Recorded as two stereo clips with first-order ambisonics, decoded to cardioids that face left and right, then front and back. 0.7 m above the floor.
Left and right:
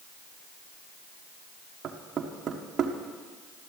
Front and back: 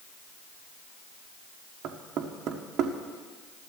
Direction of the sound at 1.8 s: 145° right.